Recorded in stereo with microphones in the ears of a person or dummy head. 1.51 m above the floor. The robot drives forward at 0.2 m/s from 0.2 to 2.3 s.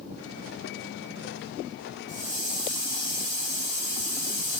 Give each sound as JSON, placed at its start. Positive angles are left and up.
{"t": 2.1, "sound": "a hiss", "side_deg": -30, "distance_m": 0.8}